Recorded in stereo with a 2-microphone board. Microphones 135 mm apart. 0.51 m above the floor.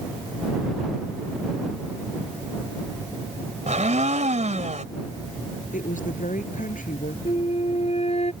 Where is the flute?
50° left (ahead or behind).